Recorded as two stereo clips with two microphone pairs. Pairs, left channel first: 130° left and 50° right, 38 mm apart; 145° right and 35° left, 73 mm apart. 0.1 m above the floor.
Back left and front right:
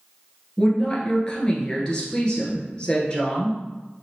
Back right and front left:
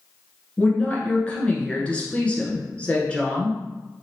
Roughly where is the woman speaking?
Behind.